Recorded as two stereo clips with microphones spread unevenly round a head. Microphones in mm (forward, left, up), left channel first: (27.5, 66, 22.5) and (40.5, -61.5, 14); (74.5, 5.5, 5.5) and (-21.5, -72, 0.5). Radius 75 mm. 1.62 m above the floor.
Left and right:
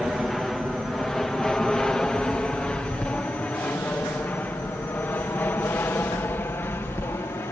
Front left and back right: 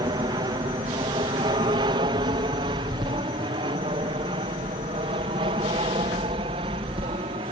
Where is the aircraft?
170° right; by 7.5 s 170° left.